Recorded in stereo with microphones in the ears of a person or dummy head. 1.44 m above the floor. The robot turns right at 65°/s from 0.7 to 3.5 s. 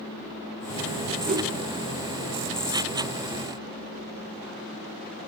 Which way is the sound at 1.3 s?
40° right (ahead or behind).